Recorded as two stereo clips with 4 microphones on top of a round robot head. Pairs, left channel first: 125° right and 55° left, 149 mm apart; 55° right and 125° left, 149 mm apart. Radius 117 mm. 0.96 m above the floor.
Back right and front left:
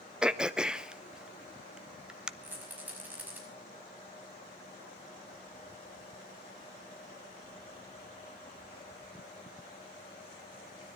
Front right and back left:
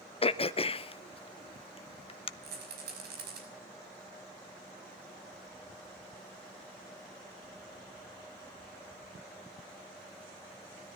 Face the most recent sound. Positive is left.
turn(degrees=135)